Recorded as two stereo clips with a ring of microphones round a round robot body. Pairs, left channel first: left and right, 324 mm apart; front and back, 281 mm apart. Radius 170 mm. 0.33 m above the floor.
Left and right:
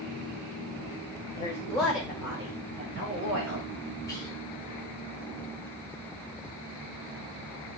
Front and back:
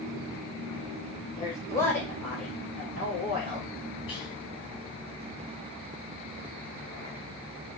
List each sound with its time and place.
1.4 s a woman speaking: 45° left, 1.3 m; by 3.7 s 110° right, 1.7 m
4.1 s whispering: 30° left, 1.4 m